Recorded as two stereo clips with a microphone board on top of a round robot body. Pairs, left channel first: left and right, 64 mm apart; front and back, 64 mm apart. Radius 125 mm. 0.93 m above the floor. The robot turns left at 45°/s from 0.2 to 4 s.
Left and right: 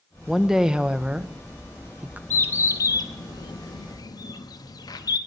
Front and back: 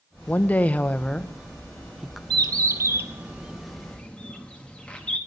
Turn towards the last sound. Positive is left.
turn(degrees=75)